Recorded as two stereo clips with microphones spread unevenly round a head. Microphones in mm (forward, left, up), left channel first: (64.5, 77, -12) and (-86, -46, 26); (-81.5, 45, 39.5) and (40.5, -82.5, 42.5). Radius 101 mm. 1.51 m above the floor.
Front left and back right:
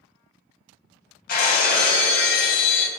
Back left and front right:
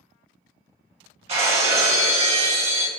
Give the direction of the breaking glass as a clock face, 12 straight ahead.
12 o'clock.